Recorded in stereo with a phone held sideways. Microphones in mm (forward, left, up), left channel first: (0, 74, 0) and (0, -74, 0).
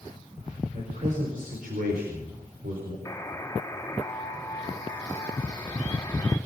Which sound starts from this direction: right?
A man speaking, at 0.7 s.